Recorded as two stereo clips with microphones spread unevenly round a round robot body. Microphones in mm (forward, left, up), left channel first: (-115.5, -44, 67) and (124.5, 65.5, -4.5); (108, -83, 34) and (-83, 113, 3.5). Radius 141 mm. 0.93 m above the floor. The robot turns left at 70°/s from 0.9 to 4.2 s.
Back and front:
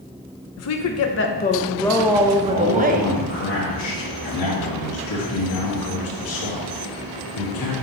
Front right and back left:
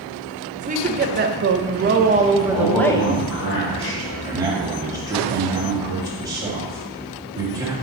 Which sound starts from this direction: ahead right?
A man speaking, at 2.5 s.